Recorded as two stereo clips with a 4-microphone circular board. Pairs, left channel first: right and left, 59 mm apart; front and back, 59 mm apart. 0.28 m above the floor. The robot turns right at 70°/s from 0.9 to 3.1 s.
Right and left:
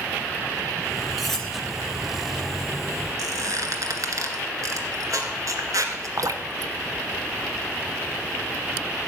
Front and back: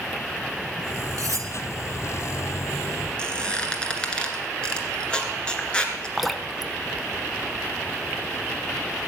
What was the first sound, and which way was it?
Cutlery clinking, straight behind.